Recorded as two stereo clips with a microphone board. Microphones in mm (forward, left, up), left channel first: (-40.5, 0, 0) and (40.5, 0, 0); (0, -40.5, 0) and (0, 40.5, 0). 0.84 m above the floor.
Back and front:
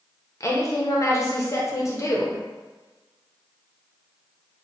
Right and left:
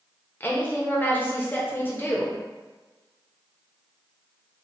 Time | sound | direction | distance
0.4 | a woman speaking | 145° right | 0.7 m